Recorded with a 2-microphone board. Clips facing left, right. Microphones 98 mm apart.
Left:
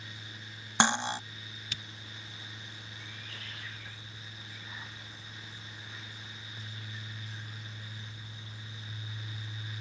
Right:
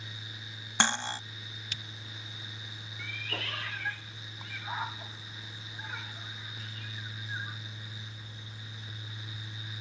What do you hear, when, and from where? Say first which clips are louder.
0.8 s cutlery clinking: left 3 dB; 15° left (ahead or behind)
3.0 s a cat meowing: right 12 dB; 70° right (ahead or behind)